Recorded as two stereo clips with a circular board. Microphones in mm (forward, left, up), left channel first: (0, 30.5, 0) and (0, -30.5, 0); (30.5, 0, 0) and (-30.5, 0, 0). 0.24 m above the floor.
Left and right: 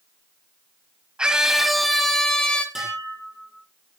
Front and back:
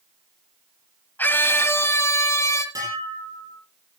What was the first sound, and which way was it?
A scream, 25° right.